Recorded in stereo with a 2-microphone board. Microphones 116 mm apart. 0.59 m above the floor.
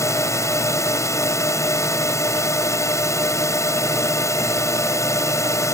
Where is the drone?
25° left (ahead or behind).